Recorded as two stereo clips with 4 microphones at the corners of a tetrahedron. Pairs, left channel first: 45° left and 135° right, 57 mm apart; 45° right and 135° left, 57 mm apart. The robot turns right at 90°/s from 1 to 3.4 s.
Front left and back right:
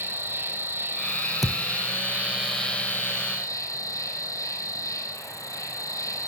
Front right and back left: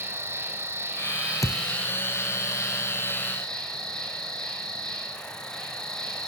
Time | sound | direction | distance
0.0 | an insect | 175° left | 3.5 m
1.4 | a thud | 50° right | 2.0 m